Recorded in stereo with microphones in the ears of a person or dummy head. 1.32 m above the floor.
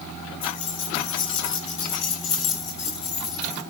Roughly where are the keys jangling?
Left.